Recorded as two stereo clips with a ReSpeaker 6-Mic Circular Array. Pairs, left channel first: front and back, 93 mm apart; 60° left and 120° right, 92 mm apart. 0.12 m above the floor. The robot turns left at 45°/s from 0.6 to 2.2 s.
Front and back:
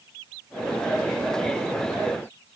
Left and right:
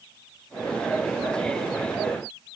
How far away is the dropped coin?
I don't hear a dropped coin.